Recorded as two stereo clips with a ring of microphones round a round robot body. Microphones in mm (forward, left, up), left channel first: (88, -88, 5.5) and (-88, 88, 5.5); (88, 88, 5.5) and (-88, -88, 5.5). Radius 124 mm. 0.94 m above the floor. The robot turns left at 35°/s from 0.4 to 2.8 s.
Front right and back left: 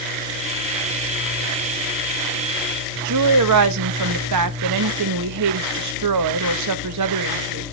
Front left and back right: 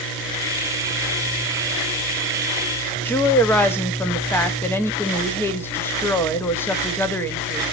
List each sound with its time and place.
3.0 s a woman speaking: 125° left, 0.9 m